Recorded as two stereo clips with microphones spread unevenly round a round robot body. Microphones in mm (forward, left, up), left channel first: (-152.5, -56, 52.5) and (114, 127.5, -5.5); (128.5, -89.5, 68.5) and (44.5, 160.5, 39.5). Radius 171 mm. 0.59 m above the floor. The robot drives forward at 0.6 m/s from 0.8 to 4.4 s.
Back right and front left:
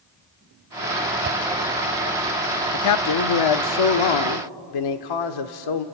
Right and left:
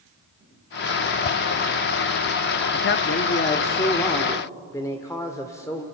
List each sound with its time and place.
1.2 s a whoosh: 15° right, 0.8 m
2.7 s a man speaking: 105° right, 0.8 m; by 5.8 s 155° right, 1.4 m